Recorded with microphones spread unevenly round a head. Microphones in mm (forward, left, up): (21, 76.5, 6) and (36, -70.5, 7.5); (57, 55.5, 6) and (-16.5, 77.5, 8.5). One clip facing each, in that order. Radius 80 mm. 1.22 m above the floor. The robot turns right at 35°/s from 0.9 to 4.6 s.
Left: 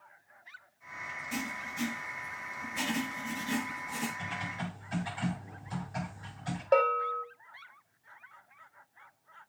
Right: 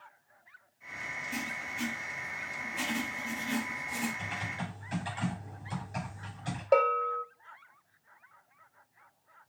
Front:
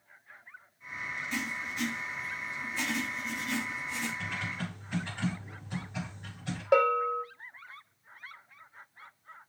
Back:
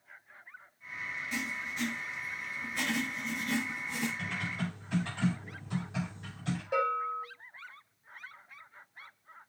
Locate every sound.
1.3 s writing: 85° left, 5.5 m; by 4.1 s 175° right, 5.5 m
4.2 s typing on a keyboard: 170° right, 6.5 m; by 6.6 s 155° right, 6.5 m
6.7 s a bell: 5° right, 1.1 m